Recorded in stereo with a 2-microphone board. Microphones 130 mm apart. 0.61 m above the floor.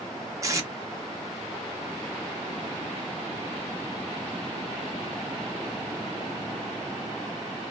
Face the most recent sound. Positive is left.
turn(degrees=-25)  # may be behind; listen again after turning